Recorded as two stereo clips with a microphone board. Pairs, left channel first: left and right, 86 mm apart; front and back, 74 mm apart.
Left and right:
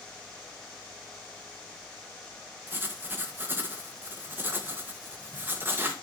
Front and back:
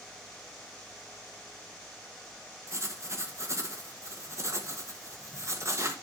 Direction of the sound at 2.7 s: 150° right.